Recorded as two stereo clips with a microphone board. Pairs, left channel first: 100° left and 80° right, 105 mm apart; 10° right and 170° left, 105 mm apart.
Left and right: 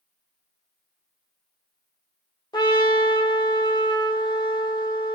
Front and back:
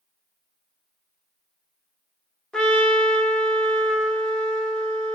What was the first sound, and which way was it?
A trumpet, 70° left.